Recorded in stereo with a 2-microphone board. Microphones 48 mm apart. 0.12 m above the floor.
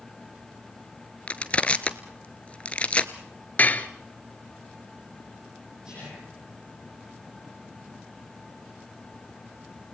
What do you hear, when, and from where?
1.3 s crushing: 25° left (ahead or behind), 1.0 m
3.6 s dishes clattering: 35° left (ahead or behind), 1.3 m
5.8 s whispering: 15° right (ahead or behind), 7 m